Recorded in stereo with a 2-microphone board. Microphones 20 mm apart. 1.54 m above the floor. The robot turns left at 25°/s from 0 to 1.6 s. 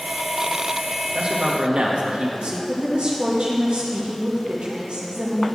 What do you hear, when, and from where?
1.1 s a man speaking: 60° right (ahead or behind), 2 m; by 2.6 s 70° right (ahead or behind), 2 m
2.7 s a woman speaking: 70° right (ahead or behind), 3 m